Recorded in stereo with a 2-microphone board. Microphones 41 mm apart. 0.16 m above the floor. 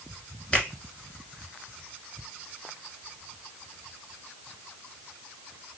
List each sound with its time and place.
0.5 s a finger snap: 25° left (ahead or behind), 1.2 m